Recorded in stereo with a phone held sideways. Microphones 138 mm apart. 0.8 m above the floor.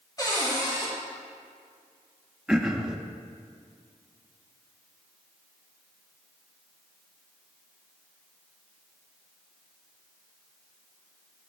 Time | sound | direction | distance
0.2 | a cupboard door | 30° left (ahead or behind) | 1.8 m
2.5 | throat clearing | 5° right (ahead or behind) | 0.6 m